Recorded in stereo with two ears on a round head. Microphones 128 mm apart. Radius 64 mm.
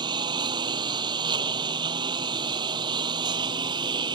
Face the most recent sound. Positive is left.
turn(degrees=-30)  # may be behind; listen again after turning